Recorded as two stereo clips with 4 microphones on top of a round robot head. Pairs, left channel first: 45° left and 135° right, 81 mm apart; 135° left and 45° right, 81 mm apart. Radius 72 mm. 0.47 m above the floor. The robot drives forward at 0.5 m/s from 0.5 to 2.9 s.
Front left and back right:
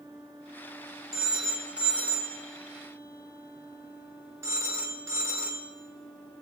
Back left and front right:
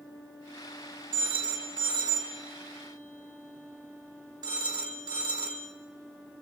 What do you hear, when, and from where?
1.1 s a phone ringing: 55° right, 2 m; by 5.7 s 80° right, 1.9 m